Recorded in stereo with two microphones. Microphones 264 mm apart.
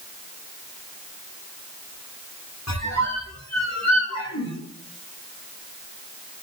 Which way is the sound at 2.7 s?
85° left.